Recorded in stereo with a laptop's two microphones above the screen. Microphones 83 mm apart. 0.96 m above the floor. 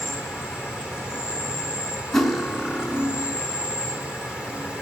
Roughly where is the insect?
Centre.